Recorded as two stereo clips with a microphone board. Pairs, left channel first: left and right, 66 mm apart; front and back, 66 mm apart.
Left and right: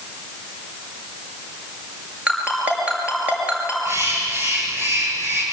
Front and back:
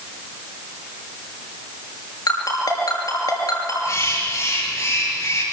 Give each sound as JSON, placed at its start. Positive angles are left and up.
{"t": 2.3, "sound": "a ringtone", "azimuth_deg": -20, "distance_m": 6.5}
{"t": 3.9, "sound": "a bird", "azimuth_deg": -40, "distance_m": 7.0}